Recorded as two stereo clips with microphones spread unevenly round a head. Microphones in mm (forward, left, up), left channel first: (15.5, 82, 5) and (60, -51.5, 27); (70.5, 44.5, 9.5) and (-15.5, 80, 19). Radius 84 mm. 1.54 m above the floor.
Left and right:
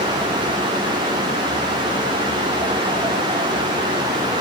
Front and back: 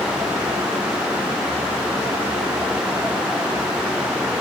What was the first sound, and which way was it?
Only background noise.